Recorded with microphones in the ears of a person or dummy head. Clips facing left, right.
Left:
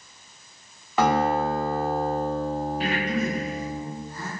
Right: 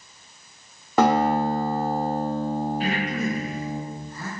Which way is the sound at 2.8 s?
60° left (ahead or behind).